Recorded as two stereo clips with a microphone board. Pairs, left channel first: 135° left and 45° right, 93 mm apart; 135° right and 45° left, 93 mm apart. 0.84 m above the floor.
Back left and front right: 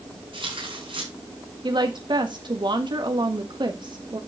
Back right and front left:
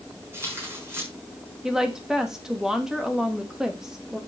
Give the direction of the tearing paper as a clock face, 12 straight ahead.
1 o'clock.